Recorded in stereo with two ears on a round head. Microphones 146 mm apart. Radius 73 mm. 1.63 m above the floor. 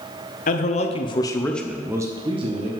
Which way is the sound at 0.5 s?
50° left (ahead or behind).